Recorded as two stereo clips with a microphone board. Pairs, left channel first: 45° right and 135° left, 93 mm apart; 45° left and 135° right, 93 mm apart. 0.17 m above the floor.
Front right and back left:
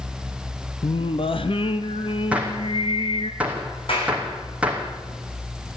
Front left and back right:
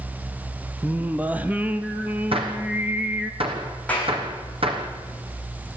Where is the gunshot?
150° right, 3.5 m.